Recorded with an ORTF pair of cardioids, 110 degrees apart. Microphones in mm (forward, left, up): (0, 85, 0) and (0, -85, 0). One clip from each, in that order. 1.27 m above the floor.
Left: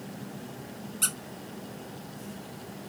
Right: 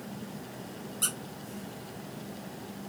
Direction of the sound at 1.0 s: 20° left.